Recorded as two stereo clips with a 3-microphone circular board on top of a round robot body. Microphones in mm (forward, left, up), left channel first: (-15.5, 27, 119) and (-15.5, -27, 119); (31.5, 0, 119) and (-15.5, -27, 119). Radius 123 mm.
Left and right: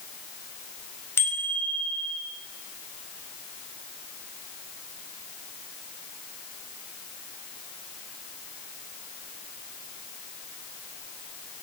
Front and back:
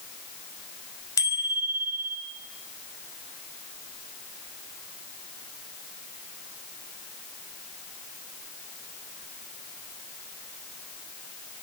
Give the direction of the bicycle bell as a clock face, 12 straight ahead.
11 o'clock.